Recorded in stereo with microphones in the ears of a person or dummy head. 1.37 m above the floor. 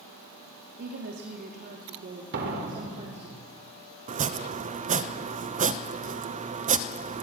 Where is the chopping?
30° right (ahead or behind), 0.9 m.